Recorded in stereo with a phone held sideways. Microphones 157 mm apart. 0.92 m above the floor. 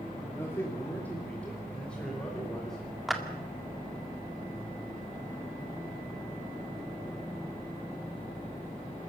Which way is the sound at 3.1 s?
Centre (ahead or behind).